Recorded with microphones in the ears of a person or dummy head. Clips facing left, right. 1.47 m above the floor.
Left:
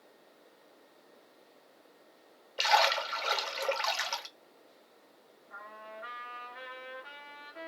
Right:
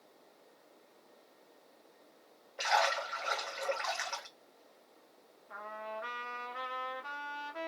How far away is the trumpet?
About 0.6 m.